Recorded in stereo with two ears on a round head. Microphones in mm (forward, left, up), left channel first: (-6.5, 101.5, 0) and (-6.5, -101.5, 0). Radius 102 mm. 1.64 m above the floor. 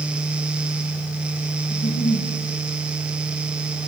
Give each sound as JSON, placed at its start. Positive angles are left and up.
{"t": 1.7, "sound": "a giggle", "side_deg": 50, "distance_m": 4.0}